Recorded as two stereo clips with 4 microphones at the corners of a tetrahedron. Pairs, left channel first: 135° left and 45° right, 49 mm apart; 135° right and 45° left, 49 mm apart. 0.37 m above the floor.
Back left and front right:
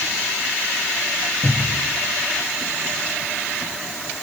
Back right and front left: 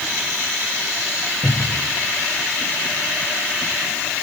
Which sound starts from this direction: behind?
A cupboard door, at 1.4 s.